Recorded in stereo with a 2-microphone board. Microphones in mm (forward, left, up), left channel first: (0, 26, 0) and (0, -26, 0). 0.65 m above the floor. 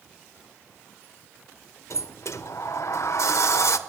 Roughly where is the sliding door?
Left.